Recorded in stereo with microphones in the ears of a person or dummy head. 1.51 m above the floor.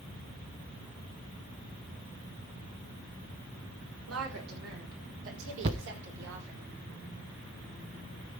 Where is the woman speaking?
85° right, 5 m; by 6.6 s 60° right (ahead or behind), 4.5 m.